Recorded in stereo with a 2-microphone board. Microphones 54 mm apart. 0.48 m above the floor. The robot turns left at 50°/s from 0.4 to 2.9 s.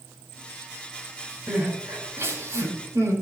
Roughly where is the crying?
Centre.